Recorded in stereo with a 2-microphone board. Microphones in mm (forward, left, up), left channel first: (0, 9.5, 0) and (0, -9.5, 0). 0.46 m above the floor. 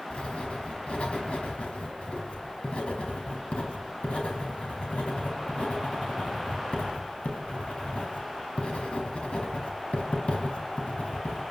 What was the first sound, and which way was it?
Writing, 70° left (ahead or behind).